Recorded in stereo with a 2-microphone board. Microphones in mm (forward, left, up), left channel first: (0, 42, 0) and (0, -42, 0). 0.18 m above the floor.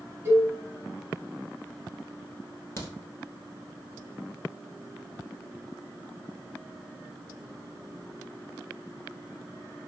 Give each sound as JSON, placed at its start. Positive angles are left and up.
{"t": 0.2, "sound": "a cowbell", "side_deg": -30, "distance_m": 0.9}
{"t": 2.8, "sound": "a crack", "side_deg": 35, "distance_m": 0.8}